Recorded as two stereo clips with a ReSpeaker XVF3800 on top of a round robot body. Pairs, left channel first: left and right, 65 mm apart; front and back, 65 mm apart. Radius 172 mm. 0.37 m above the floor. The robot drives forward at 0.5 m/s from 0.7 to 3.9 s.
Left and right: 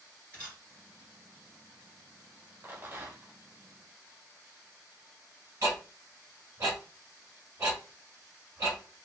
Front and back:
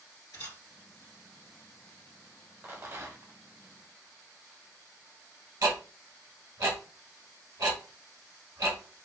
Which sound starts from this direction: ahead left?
A camera shutter, at 0.3 s.